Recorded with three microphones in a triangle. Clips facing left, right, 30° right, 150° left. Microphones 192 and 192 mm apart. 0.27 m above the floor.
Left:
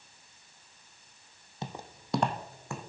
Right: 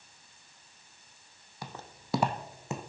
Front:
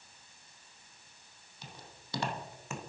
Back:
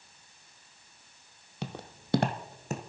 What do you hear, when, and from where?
1.6 s footsteps: 150° left, 0.6 m; by 2.8 s 155° right, 1.0 m